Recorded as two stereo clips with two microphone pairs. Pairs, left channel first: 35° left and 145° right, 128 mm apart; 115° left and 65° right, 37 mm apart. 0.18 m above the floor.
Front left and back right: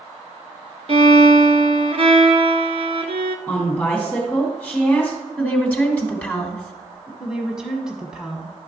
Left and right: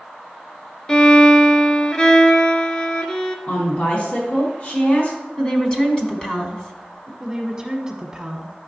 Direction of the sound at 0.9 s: Straight behind.